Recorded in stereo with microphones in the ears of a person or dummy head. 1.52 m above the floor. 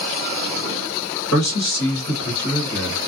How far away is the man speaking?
About 1.1 m.